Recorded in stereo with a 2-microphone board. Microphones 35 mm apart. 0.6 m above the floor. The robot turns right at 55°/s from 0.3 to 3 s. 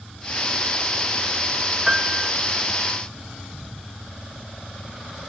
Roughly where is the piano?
Right.